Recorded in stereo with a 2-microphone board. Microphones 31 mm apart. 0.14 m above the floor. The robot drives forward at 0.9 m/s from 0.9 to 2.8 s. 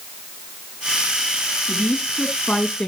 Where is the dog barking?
No dog barking in this recording.